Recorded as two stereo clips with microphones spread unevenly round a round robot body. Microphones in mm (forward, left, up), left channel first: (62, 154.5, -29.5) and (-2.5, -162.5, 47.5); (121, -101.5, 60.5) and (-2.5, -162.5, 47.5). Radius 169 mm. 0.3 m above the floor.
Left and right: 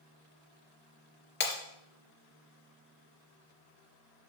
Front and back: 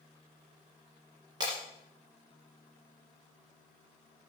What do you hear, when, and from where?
1.4 s breaking glass: 135° left, 2.5 m